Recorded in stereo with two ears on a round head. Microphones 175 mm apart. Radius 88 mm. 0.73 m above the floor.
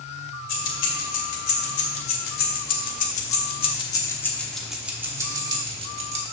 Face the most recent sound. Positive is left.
turn(degrees=-35)  # may be behind; listen again after turning